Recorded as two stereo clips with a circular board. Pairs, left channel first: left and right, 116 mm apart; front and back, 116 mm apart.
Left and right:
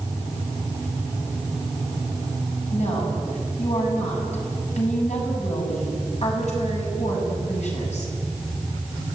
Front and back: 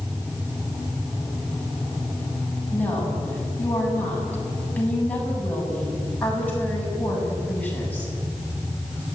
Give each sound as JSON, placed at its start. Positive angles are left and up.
{"t": 2.7, "sound": "a woman speaking", "azimuth_deg": 75, "distance_m": 8.0}